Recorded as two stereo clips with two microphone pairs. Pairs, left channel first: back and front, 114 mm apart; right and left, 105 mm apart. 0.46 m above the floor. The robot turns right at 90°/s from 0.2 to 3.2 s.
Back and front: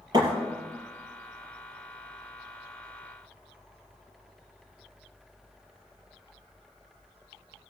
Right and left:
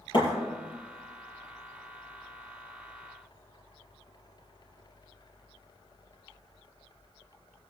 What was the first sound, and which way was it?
A thud, 50° right.